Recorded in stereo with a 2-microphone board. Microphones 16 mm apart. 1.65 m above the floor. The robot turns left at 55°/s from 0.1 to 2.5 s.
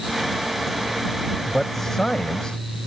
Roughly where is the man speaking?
Behind.